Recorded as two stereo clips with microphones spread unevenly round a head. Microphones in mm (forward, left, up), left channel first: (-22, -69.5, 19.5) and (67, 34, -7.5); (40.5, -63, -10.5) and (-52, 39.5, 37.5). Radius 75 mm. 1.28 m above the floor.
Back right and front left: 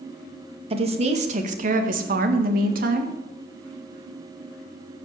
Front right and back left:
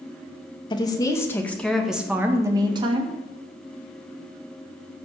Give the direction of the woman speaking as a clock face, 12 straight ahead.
12 o'clock.